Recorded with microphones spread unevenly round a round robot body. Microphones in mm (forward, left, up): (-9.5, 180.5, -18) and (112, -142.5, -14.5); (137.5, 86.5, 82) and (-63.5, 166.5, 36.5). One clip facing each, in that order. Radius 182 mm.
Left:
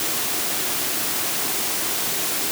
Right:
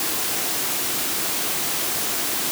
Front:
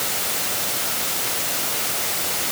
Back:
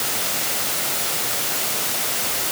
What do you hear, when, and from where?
Only background noise.